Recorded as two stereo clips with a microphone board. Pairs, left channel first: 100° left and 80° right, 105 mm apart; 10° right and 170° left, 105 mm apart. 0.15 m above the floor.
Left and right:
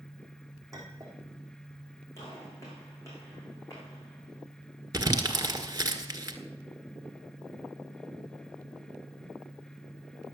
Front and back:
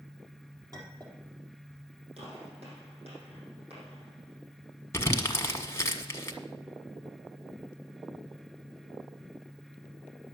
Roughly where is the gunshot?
Behind.